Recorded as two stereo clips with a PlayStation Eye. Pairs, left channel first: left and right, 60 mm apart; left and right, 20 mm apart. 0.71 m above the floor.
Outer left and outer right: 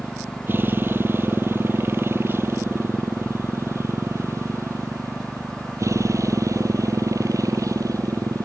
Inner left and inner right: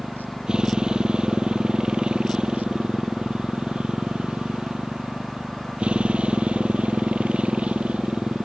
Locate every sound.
0.0 s a motorcycle: 35° right (ahead or behind); by 8.5 s 70° right (ahead or behind)